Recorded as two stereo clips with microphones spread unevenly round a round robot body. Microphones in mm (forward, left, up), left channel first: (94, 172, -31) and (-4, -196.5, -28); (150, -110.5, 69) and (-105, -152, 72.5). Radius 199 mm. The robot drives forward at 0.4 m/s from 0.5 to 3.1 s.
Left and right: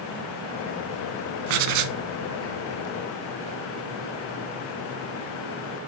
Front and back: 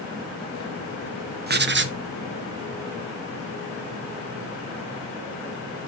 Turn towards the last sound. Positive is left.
turn(degrees=-140)